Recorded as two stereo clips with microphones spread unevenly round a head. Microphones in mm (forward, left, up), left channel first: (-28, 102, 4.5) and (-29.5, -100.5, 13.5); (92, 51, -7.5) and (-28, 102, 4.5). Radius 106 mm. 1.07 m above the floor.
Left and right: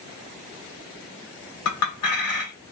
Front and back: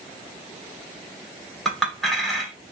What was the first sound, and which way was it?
A clink, 65° left.